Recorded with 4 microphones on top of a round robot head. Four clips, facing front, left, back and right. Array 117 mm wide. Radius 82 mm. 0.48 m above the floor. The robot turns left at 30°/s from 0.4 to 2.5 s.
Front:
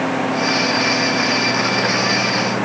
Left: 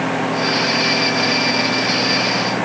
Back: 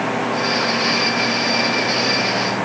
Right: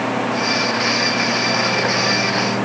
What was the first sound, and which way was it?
Only background noise.